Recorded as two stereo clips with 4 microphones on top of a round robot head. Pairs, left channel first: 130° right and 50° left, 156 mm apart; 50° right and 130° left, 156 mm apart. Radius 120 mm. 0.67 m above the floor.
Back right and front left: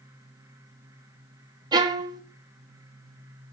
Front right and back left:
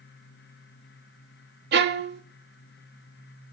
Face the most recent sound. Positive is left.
turn(degrees=110)